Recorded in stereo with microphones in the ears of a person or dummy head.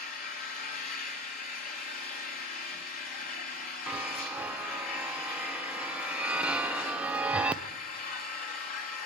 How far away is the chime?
About 0.7 m.